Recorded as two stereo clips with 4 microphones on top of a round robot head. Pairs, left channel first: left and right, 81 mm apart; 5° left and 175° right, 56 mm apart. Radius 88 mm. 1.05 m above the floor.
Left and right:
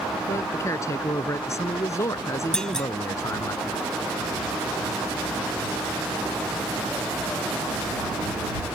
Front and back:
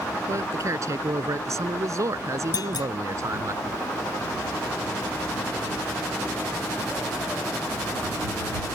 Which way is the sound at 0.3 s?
150° left.